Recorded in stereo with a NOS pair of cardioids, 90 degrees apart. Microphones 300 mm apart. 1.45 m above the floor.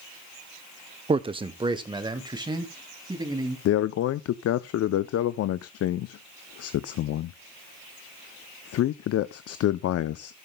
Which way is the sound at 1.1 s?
20° right.